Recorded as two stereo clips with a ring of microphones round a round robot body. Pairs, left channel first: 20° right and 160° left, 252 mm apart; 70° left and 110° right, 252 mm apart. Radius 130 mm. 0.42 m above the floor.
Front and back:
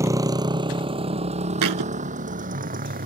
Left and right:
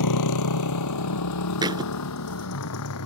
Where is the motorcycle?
80° left; by 3.1 s 100° left.